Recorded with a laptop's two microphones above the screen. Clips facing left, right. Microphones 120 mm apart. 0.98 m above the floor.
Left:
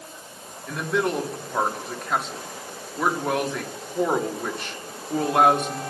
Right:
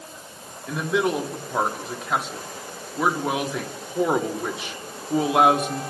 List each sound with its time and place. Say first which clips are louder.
0.7 s a man speaking: right 2 dB; 5° right (ahead or behind), 1.7 m